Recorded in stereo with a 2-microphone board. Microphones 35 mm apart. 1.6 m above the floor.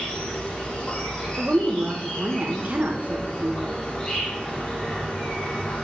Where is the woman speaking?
45° right (ahead or behind), 1.9 m.